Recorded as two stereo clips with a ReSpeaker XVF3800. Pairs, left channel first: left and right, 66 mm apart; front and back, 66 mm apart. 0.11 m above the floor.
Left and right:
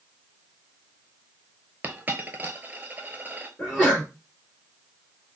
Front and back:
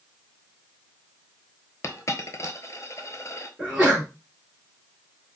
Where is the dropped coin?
30° right, 0.6 m.